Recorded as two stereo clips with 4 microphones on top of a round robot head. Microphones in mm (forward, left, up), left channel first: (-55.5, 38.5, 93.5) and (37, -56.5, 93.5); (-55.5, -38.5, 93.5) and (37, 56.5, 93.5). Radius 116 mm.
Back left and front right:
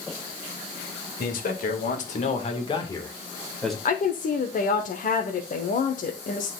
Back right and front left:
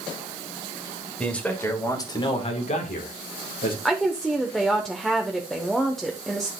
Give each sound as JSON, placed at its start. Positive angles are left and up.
{"t": 1.2, "sound": "a man speaking", "azimuth_deg": 140, "distance_m": 2.0}
{"t": 3.9, "sound": "a woman speaking", "azimuth_deg": 140, "distance_m": 0.9}